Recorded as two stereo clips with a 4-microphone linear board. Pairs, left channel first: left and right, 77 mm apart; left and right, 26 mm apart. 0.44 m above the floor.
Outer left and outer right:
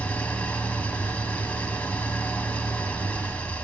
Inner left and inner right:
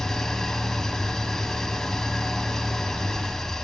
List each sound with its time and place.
0.0 s an engine running: 20° left (ahead or behind), 1.0 m